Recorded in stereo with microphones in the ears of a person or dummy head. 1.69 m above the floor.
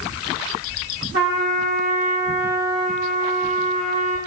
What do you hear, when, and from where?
1.1 s a trumpet: 60° right (ahead or behind), 2.5 m